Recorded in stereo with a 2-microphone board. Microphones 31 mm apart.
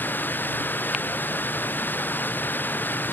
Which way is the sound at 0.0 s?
80° left.